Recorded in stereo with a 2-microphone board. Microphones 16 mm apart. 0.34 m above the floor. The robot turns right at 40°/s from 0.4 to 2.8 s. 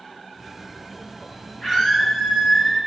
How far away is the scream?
About 3 m.